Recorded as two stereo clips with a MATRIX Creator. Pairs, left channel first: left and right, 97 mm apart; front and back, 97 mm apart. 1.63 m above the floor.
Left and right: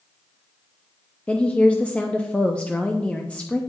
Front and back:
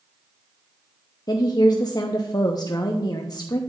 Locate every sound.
1.3 s a woman speaking: 20° left, 0.6 m